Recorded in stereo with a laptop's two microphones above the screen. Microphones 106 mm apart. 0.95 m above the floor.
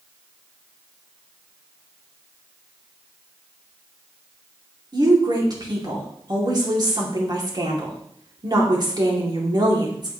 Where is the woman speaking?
40° right (ahead or behind), 2.5 m.